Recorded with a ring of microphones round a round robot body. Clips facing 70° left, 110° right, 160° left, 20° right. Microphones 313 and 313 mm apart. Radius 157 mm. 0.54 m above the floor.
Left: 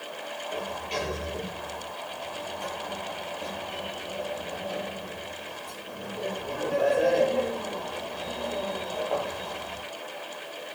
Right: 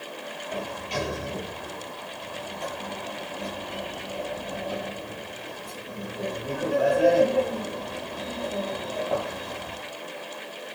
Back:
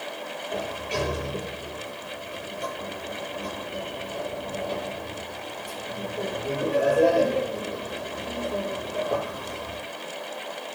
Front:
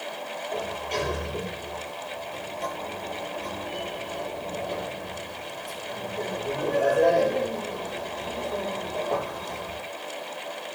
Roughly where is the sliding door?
Behind right.